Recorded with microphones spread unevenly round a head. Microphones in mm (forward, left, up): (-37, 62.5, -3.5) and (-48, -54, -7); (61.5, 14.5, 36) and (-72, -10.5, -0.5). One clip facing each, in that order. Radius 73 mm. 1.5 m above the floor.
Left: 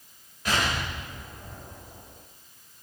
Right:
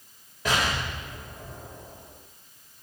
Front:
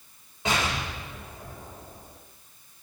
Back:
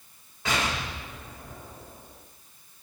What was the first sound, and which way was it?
An explosion, 60° right.